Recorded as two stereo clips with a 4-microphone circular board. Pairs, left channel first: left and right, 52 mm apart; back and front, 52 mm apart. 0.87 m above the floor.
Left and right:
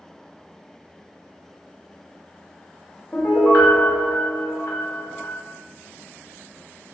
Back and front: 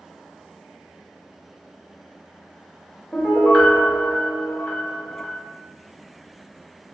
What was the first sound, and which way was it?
A piano, 115° left.